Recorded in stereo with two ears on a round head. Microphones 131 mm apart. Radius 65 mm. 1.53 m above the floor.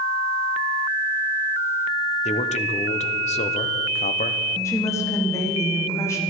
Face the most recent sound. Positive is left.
turn(degrees=20)  # may be behind; listen again after turning